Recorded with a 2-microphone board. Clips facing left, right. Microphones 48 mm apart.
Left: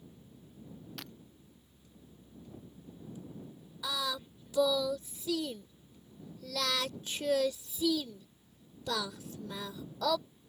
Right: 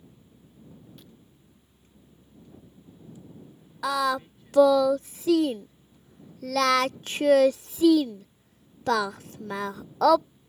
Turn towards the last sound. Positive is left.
turn(degrees=-60)  # may be behind; listen again after turning